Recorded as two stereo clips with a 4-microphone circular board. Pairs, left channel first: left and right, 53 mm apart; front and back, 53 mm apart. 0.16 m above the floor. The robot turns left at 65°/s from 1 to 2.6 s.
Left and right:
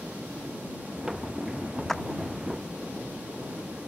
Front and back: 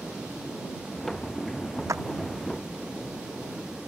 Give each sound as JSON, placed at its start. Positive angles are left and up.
{"t": 1.9, "sound": "a clap", "azimuth_deg": 175}